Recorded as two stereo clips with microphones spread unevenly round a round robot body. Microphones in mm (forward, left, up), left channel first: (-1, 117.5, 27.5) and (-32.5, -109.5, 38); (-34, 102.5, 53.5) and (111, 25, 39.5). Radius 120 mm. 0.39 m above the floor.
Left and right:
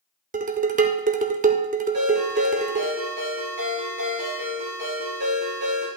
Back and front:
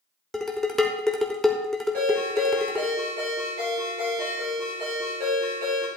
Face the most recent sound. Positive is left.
turn(degrees=-75)